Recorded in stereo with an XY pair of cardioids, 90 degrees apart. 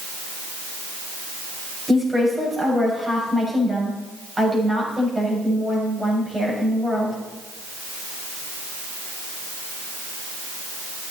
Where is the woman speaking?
20° right, 7.5 m.